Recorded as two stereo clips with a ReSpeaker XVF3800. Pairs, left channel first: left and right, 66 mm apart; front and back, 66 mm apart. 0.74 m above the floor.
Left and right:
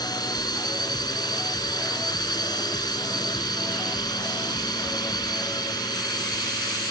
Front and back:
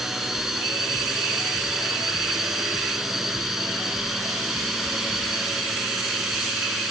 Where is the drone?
95° left.